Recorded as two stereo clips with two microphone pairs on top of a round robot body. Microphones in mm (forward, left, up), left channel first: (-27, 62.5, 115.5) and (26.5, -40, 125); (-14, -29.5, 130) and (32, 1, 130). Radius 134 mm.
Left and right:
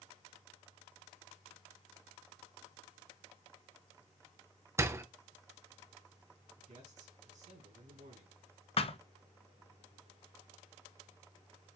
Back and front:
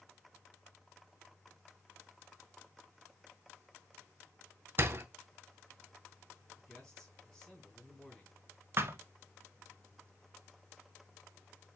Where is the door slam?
Straight ahead, 0.9 m.